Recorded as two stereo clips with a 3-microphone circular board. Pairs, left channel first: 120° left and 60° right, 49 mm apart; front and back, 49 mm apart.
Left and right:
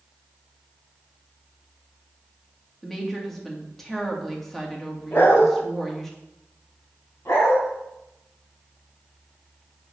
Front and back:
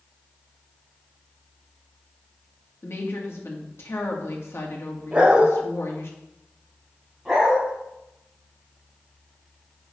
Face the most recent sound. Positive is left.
turn(degrees=100)